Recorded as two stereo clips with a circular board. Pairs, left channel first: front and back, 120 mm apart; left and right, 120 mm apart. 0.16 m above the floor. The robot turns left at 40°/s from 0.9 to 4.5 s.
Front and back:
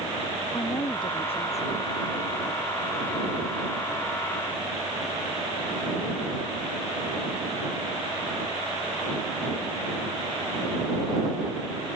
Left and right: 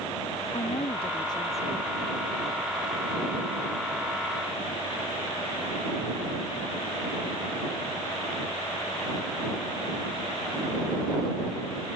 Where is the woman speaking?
55° left; by 1.9 s 15° left.